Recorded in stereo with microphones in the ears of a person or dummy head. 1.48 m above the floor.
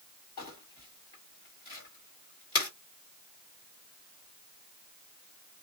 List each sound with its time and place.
0.4 s crumpling: 30° left (ahead or behind), 1.7 m